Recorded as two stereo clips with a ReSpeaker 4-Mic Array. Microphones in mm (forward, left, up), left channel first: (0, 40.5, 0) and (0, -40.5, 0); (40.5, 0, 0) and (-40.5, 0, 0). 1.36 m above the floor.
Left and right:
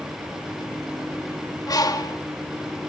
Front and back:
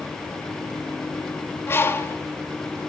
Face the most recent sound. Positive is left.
turn(degrees=60)